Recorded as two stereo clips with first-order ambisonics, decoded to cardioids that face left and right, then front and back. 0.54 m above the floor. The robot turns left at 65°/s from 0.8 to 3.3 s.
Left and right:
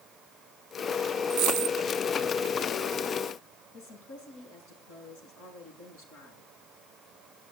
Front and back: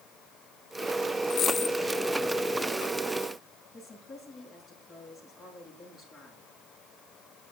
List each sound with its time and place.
1.3 s a dropped coin: 55° right, 1.7 m; by 1.8 s 85° right, 1.7 m
3.7 s a woman speaking: 70° left, 8 m